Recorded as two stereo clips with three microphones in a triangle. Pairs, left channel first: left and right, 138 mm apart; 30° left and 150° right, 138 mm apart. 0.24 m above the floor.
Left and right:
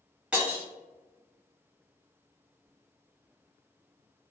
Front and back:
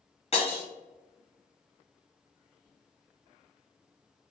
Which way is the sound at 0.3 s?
10° right.